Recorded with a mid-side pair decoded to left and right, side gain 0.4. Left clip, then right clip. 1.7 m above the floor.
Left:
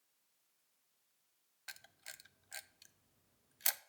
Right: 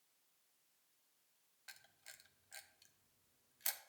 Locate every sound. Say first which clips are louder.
1.7 s a camera shutter: left 6 dB; 60° left, 0.6 m